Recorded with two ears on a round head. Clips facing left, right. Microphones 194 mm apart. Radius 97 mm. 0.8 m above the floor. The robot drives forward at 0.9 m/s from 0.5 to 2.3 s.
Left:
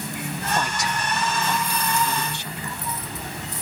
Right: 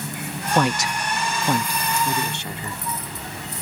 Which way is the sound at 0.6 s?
50° right (ahead or behind).